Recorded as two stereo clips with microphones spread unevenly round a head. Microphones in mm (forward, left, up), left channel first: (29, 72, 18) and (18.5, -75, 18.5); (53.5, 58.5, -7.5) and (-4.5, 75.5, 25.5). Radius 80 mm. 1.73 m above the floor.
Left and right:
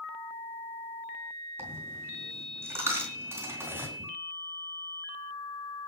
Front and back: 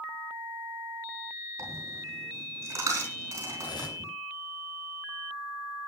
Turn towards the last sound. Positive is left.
turn(degrees=-20)